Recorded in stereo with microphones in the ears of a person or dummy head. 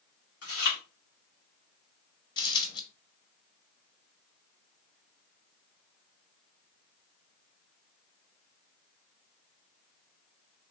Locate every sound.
0.4 s chewing: 70° left (ahead or behind), 2 m
2.4 s a dropped coin: 25° left (ahead or behind), 1.8 m